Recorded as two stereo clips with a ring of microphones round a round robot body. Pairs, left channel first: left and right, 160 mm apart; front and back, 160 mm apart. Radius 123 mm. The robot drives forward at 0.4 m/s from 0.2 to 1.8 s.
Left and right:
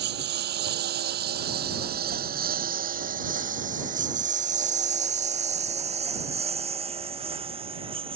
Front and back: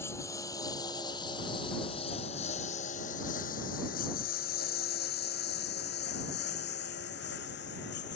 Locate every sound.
0.0 s a lawn mower: 80° right; by 8.2 s 35° right